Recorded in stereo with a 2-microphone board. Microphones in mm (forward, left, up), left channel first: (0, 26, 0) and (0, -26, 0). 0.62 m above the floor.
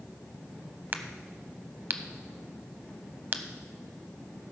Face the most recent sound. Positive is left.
turn(degrees=-40)  # may be behind; listen again after turning